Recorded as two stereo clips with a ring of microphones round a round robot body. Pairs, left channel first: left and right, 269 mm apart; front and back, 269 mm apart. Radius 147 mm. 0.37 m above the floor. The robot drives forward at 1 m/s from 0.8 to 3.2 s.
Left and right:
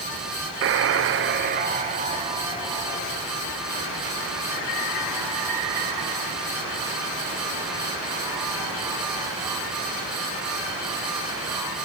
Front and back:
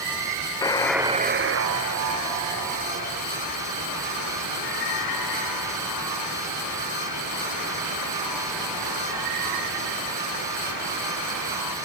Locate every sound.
0.6 s a buzzer: 75° right, 0.6 m; by 11.8 s 170° right, 2.5 m